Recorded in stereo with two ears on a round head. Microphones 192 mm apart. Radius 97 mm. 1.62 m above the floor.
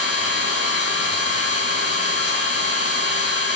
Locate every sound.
0.0 s an engine running: 55° left (ahead or behind), 5 m